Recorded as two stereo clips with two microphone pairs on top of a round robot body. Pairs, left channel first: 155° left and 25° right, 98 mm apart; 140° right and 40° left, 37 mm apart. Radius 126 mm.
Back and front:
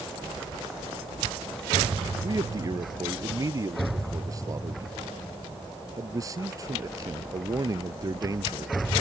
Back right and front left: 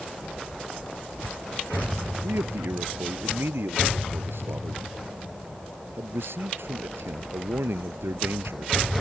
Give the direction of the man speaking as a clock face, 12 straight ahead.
11 o'clock.